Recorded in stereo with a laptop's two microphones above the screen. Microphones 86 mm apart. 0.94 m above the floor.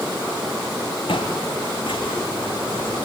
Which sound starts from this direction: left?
Footsteps, at 1.1 s.